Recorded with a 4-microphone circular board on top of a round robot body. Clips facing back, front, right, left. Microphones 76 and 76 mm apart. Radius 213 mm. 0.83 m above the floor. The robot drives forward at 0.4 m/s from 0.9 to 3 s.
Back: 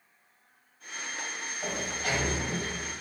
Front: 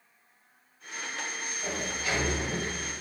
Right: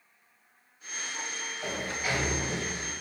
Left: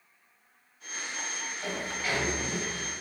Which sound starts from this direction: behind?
A sliding door, at 1.6 s.